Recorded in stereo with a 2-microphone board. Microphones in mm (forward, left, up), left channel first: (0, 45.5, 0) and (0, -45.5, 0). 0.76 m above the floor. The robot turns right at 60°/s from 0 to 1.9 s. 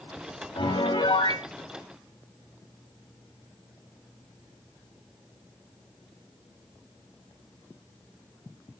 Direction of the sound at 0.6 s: 65° left.